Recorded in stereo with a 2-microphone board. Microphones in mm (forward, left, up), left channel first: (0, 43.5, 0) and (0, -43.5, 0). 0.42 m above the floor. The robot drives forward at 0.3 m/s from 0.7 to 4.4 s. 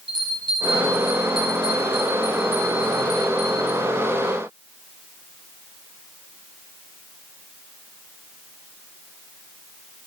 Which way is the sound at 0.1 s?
65° left (ahead or behind).